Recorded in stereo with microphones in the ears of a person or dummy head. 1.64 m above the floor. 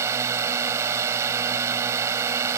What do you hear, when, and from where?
0.0 s a drone: 15° right (ahead or behind)